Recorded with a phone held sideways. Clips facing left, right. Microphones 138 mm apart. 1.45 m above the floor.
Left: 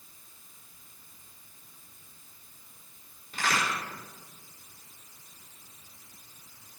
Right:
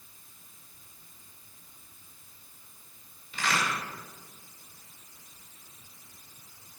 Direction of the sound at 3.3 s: 45° left (ahead or behind).